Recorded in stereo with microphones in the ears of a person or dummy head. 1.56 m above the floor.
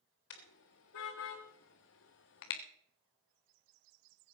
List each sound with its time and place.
0.3 s a car horn: 75° left (ahead or behind), 3 m; by 2.6 s 55° left (ahead or behind), 1.4 m